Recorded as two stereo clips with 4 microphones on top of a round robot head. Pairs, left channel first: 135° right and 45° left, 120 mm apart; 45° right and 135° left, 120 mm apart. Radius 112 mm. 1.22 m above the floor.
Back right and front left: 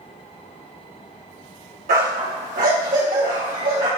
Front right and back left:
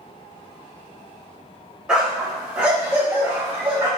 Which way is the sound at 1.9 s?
50° left.